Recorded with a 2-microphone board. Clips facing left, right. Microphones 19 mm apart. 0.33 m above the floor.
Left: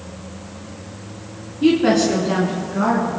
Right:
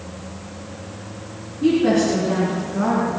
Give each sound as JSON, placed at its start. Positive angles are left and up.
{"t": 1.6, "sound": "a woman speaking", "side_deg": 50, "distance_m": 3.0}